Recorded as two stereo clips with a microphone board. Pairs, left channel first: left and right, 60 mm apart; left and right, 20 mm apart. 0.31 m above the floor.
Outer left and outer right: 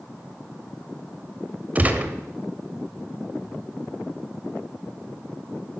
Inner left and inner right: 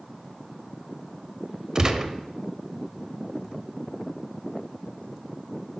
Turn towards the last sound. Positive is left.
turn(degrees=-30)  # may be behind; listen again after turning